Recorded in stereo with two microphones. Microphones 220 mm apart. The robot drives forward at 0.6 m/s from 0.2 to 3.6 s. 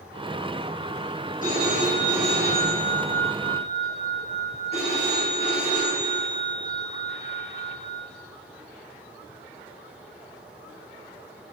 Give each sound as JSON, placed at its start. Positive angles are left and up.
{"t": 1.4, "sound": "a phone ringing", "side_deg": 40, "distance_m": 3.0}